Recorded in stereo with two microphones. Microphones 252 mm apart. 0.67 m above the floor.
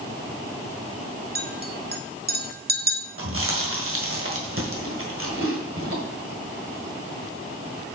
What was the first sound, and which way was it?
A clink, 40° right (ahead or behind).